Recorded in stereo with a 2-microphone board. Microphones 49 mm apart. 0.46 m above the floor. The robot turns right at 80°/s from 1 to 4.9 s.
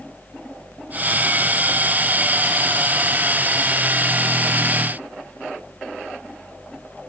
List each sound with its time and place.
Only background noise.